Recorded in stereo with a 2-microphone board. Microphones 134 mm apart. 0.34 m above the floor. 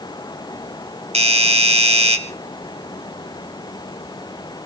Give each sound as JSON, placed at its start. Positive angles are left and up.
{"t": 1.1, "sound": "a doorbell", "side_deg": -50, "distance_m": 2.5}